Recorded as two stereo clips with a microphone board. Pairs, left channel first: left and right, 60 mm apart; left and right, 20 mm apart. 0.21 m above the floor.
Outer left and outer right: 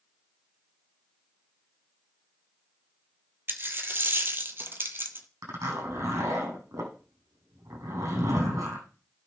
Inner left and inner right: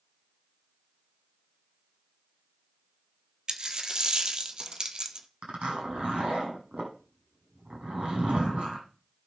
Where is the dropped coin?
35° right (ahead or behind), 1.1 m.